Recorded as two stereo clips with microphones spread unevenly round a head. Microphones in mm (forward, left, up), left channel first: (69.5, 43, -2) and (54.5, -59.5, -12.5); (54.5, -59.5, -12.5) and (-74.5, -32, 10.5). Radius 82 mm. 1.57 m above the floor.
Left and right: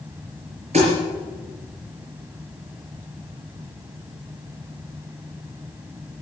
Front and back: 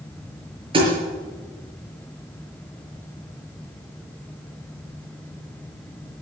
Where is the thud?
150° right, 6.5 m.